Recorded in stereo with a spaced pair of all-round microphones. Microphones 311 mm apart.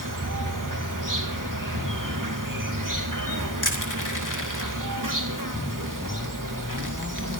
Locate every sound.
0.0 s an insect: 85° right, 3 m
3.6 s crushing: 80° left, 3 m